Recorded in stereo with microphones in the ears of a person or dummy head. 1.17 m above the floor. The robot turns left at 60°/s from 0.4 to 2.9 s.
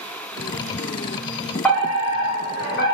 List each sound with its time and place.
1.6 s a fire alarm: 175° left, 1.3 m; by 2.9 s 100° left, 1.3 m